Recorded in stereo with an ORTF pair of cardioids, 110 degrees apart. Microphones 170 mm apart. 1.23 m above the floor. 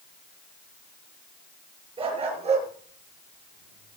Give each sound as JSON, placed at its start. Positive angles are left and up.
{"t": 2.0, "sound": "a dog barking", "azimuth_deg": -35, "distance_m": 5.5}